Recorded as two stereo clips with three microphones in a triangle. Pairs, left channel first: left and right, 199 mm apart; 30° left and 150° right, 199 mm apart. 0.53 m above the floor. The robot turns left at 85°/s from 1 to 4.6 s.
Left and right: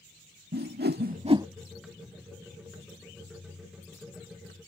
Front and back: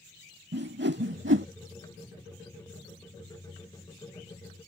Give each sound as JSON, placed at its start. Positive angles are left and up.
{"t": 0.5, "sound": "a whoosh", "azimuth_deg": -125}